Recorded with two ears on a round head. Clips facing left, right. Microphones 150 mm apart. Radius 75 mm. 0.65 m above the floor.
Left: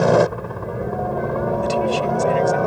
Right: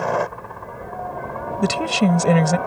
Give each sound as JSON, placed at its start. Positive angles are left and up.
{"t": 0.0, "sound": "a helicopter", "side_deg": 45}
{"t": 1.6, "sound": "a woman speaking", "side_deg": -75}